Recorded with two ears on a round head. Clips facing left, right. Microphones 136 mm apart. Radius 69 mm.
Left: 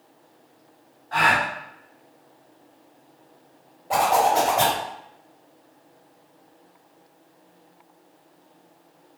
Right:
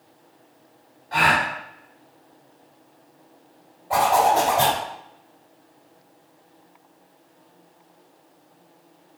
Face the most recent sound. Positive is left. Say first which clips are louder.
# right 1 dB
turn(degrees=35)  # may be behind; listen again after turning